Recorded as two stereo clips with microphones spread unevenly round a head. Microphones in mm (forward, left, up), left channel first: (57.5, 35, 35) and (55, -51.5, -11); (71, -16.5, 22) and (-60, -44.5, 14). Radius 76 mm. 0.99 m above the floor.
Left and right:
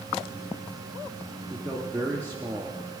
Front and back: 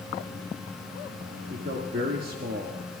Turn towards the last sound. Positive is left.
turn(degrees=-160)